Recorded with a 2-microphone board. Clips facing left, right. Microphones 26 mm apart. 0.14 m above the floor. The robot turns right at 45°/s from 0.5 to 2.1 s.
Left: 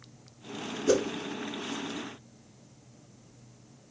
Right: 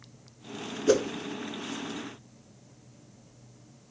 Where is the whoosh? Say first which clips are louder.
Right 2 dB; 10° right (ahead or behind), 0.6 m; by 1.1 s 20° right (ahead or behind), 0.6 m.